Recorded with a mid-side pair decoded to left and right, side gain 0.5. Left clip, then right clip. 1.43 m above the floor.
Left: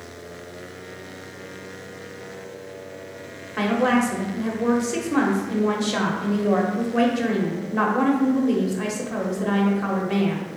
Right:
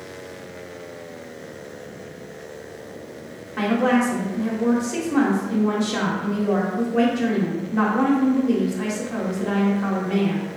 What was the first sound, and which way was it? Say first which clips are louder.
A woman speaking: even; 20° left.